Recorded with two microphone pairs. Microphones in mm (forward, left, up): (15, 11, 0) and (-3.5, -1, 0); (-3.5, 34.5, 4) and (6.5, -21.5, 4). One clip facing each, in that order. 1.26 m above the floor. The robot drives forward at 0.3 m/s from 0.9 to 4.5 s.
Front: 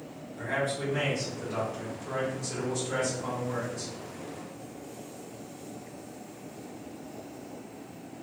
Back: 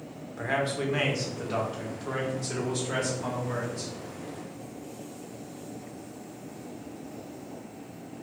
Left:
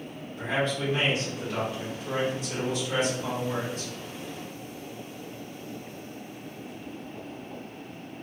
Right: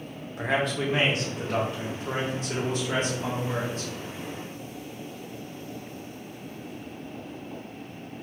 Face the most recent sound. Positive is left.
turn(degrees=-140)